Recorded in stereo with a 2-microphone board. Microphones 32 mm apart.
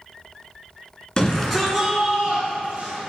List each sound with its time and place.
1.2 s a shout: 25° left (ahead or behind), 1.2 m; by 3.0 s 45° right (ahead or behind), 2 m